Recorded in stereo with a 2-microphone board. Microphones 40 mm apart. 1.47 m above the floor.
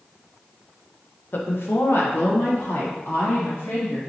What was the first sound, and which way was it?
A woman speaking, 60° left (ahead or behind).